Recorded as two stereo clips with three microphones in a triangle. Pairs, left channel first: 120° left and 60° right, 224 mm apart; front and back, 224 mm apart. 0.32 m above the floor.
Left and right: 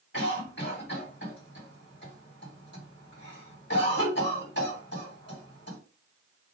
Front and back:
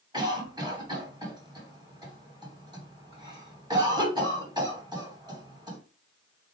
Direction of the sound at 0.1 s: 115° left.